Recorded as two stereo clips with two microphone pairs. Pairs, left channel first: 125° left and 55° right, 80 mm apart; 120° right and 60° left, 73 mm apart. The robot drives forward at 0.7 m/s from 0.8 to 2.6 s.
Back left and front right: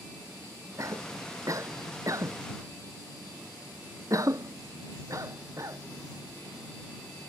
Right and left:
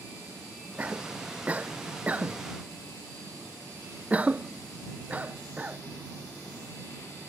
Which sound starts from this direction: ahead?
A cough, at 0.8 s.